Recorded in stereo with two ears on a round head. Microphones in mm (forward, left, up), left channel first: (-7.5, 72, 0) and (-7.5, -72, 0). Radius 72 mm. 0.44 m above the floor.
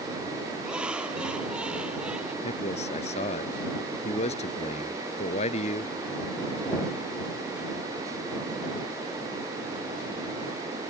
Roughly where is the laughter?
Centre.